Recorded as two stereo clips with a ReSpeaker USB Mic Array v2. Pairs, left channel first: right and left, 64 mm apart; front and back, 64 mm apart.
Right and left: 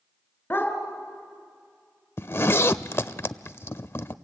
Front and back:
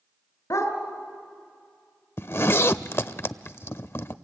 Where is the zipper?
45° right, 0.5 m.